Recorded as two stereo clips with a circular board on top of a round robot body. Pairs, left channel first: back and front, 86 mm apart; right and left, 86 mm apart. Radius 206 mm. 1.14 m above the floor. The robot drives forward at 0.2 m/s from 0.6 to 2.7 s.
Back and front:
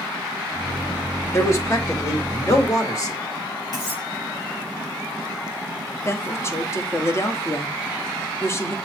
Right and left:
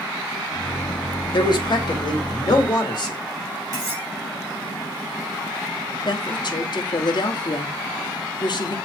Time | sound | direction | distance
1.3 | a man speaking | 120° right | 1.9 m
3.7 | cutlery clinking | 135° left | 5 m
6.0 | a woman speaking | 120° right | 1.3 m